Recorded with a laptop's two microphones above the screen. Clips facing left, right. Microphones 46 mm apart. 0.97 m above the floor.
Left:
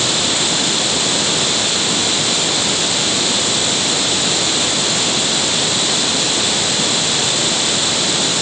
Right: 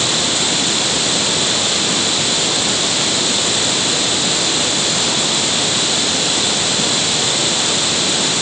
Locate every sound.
Only background noise.